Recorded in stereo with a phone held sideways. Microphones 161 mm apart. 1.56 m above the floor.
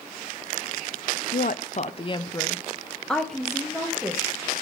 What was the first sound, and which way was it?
A woman speaking, 65° left (ahead or behind).